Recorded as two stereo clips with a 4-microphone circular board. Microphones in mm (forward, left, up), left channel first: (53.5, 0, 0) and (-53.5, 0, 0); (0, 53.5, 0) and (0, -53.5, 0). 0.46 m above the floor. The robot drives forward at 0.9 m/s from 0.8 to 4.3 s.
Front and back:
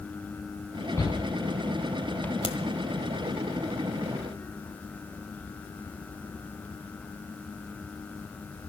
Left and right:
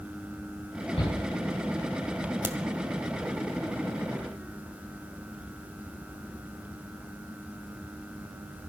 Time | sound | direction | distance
1.0 | a shout | 65° left | 5 m
2.4 | a crack | 20° right | 1.5 m